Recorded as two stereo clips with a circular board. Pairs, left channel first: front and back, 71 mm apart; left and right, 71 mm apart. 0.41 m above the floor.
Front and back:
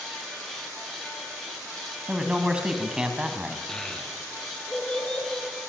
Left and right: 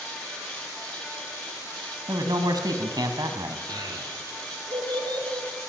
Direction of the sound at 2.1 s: 105° right.